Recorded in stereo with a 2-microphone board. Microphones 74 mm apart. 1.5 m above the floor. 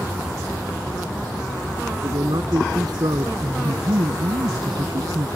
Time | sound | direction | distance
2.0 | a man speaking | 65° right (ahead or behind) | ?
3.4 | a woman speaking | 85° right | ?